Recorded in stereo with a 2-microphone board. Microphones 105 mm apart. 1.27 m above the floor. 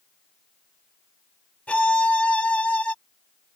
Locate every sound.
1.7 s a violin: 10° left (ahead or behind)